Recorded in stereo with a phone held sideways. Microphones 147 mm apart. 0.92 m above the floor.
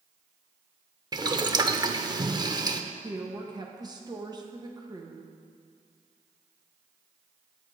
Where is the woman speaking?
25° right (ahead or behind), 1.0 m.